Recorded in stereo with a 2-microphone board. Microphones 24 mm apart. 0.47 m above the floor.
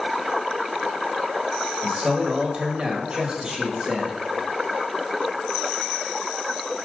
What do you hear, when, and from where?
1.8 s a man speaking: 25° right (ahead or behind), 1.7 m